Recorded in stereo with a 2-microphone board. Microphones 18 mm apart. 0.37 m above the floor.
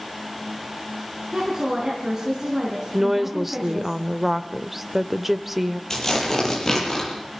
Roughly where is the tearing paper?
Left.